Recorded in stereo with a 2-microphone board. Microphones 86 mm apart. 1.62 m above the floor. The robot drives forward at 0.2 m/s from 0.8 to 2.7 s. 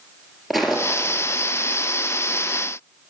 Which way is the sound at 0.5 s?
Centre (ahead or behind).